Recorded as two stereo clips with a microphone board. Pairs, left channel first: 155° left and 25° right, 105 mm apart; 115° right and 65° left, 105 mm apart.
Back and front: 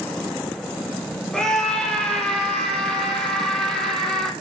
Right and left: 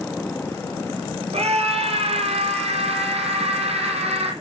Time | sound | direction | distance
1.3 | a scream | 75° left | 4.5 m